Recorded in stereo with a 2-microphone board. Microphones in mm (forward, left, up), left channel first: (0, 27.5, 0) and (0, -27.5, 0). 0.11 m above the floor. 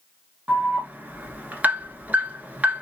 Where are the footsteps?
I don't hear footsteps.